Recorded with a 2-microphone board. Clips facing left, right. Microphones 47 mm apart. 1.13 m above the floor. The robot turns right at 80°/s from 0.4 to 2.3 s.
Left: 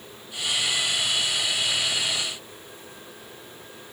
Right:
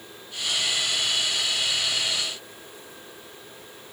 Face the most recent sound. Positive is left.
No sound to turn to.